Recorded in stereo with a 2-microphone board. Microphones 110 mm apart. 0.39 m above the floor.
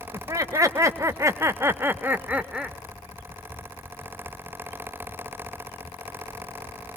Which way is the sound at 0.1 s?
30° right (ahead or behind).